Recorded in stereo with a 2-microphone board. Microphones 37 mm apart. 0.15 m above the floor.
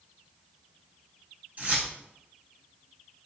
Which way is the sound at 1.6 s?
45° right (ahead or behind).